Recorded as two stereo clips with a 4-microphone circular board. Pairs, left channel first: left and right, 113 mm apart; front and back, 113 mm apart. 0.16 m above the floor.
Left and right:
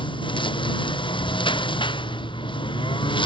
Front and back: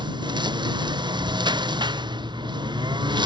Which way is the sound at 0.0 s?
130° left.